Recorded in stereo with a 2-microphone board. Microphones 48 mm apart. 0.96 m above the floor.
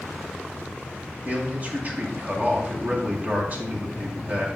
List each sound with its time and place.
1.2 s a man speaking: 35° right (ahead or behind), 2.5 m